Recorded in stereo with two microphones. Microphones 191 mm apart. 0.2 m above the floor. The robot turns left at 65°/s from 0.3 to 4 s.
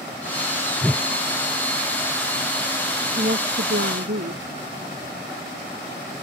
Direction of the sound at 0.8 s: Centre (ahead or behind).